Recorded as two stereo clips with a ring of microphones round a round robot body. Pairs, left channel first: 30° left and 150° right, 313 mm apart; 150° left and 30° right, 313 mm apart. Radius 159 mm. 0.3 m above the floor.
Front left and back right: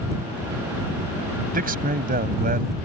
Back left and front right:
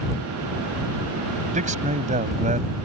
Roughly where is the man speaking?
Right.